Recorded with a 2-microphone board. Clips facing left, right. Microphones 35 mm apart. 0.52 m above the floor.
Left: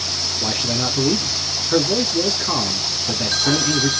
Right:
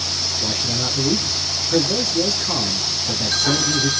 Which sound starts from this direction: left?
A man speaking, at 0.4 s.